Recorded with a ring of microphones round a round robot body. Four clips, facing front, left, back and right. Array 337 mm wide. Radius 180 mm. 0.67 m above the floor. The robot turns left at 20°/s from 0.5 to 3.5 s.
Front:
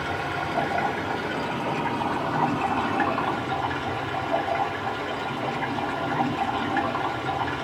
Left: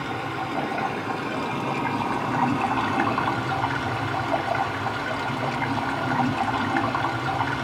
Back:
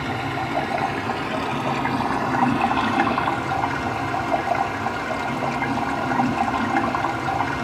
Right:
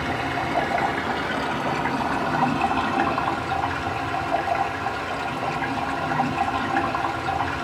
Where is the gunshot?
I don't hear a gunshot.